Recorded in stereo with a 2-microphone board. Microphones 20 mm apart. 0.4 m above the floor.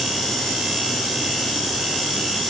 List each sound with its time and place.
Only background noise.